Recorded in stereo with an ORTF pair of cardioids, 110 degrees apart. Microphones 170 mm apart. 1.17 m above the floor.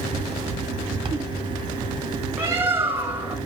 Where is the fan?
25° right, 1.3 m.